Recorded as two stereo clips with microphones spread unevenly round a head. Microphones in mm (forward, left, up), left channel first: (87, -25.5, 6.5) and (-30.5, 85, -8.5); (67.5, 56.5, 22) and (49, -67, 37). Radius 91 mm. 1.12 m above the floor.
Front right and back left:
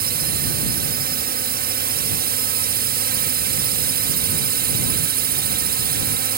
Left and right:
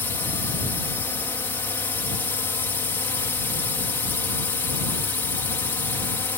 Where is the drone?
150° left.